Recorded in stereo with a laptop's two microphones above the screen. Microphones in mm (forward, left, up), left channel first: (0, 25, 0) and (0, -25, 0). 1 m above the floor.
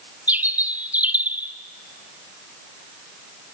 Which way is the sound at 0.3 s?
30° right (ahead or behind).